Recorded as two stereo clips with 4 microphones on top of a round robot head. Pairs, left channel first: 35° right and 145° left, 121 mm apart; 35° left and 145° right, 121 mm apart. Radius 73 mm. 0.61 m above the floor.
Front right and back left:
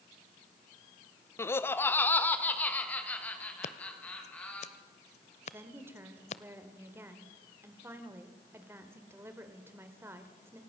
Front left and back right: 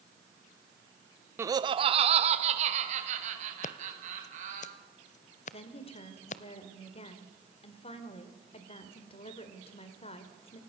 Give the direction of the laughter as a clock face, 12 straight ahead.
3 o'clock.